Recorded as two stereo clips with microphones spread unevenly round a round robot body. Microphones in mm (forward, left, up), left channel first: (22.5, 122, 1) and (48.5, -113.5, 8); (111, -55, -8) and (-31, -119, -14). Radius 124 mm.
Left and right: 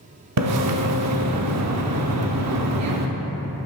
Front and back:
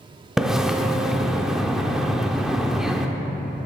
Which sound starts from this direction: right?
A splash, at 0.4 s.